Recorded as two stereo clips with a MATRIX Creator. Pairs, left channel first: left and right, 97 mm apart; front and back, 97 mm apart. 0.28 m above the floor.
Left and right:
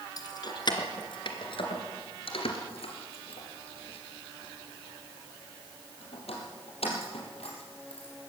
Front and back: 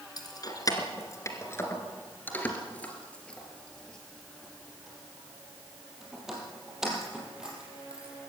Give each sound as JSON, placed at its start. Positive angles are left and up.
{"t": 0.2, "sound": "keys jangling", "azimuth_deg": 45, "distance_m": 2.5}